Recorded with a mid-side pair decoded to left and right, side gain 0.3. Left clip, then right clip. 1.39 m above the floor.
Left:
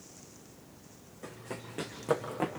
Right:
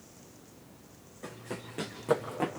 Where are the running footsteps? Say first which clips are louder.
Right 1 dB; straight ahead, 6 m.